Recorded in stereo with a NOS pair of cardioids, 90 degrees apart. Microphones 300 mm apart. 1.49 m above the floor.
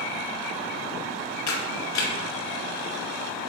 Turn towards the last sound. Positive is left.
turn(degrees=65)